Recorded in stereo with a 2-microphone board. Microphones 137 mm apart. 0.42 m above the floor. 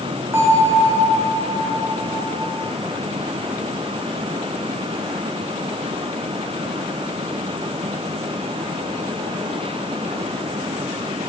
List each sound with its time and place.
0.3 s a bell: 20° right (ahead or behind), 2.0 m